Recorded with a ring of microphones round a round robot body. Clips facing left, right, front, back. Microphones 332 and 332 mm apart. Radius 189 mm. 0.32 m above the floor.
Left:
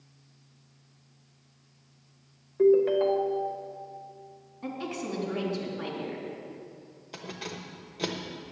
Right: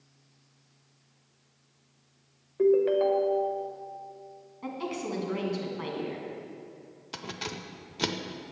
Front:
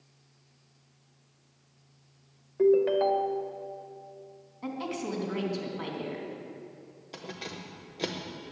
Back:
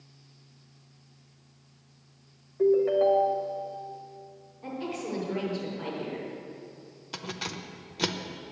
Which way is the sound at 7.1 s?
135° right.